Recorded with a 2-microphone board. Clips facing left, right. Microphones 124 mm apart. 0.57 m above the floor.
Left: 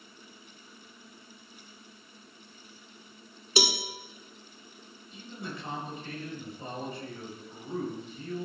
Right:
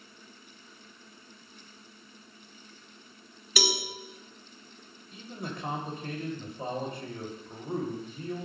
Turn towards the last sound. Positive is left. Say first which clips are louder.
# right 2 dB
turn(degrees=-55)  # may be behind; listen again after turning